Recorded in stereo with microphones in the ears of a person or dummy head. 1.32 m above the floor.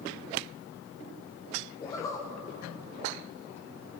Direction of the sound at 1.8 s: 20° left (ahead or behind).